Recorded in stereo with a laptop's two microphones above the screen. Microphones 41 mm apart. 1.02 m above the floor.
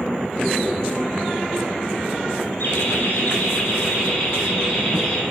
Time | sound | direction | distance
2.6 | laughter | 65° left (ahead or behind) | 4 m